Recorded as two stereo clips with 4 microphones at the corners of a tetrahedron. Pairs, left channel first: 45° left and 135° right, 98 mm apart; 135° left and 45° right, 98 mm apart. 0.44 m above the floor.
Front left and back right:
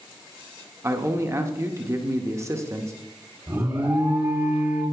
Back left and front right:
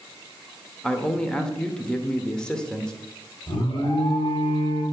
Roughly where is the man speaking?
Behind right.